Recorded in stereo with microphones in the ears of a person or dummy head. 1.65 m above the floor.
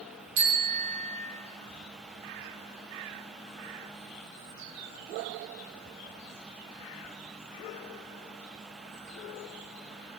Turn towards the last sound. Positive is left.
turn(degrees=-50)  # may be behind; listen again after turning